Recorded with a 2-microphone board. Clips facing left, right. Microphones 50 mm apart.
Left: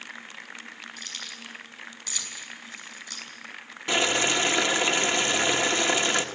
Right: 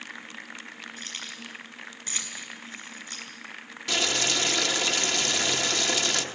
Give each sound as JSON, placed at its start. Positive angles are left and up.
{"t": 1.0, "sound": "keys jangling", "side_deg": -35, "distance_m": 5.5}
{"t": 3.9, "sound": "boiling", "side_deg": 25, "distance_m": 1.3}